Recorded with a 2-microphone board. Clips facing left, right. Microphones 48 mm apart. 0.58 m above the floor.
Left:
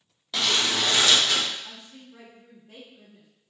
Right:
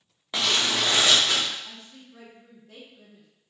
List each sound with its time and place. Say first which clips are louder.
0.3 s crumpling: even; 30° right (ahead or behind), 0.8 m
1.6 s a woman speaking: left 1 dB; 15° left (ahead or behind), 0.8 m